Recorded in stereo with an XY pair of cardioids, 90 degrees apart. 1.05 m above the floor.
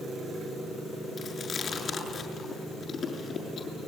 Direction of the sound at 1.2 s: 45° left.